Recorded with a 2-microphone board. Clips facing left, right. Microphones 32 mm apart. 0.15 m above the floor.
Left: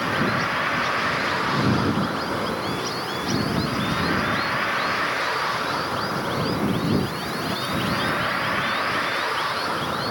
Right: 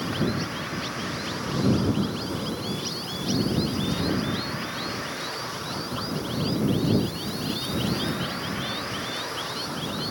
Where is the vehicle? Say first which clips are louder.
Left 5 dB; 40° left (ahead or behind).